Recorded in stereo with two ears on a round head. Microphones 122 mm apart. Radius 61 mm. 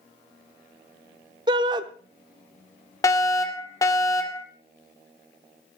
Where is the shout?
30° right (ahead or behind), 0.9 m.